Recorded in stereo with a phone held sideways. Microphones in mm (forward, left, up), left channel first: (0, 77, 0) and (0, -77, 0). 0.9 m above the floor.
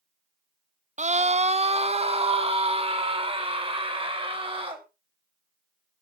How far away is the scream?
About 0.6 m.